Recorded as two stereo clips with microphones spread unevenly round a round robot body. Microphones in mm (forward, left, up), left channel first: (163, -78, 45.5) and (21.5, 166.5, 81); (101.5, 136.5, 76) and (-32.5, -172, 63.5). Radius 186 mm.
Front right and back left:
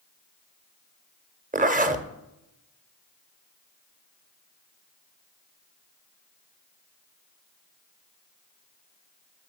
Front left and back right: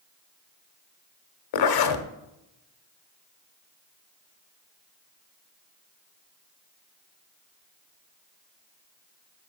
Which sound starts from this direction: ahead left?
A zipper, at 1.5 s.